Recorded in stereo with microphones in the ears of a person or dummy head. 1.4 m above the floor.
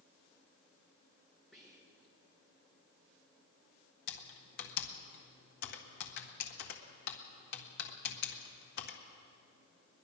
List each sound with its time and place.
1.5 s whispering: 5° right (ahead or behind), 3 m
4.1 s typing on a keyboard: 55° left (ahead or behind), 1.5 m